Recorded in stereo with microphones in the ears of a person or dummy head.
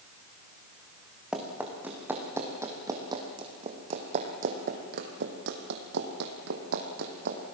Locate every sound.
1.3 s running footsteps: centre (ahead or behind), 3 m; by 7.4 s 60° right (ahead or behind), 3 m